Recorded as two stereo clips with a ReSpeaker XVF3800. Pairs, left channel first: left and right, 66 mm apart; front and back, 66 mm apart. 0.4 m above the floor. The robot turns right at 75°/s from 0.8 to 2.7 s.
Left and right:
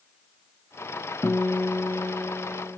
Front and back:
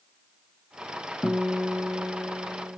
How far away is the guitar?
About 0.9 m.